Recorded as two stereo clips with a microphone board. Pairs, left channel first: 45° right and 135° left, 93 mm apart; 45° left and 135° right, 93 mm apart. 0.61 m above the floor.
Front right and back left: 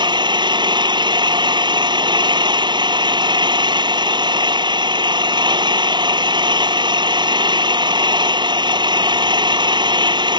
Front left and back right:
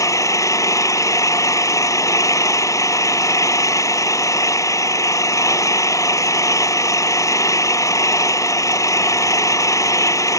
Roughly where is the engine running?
Left.